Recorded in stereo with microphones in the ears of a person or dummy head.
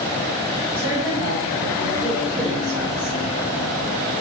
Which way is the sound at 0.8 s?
10° right (ahead or behind).